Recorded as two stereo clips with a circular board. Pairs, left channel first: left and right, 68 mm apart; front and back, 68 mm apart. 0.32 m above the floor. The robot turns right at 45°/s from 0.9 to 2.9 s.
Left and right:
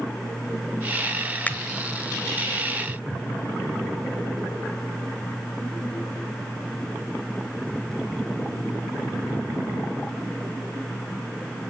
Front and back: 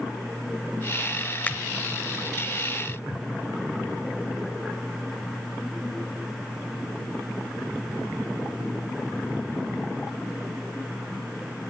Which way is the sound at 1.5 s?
45° left.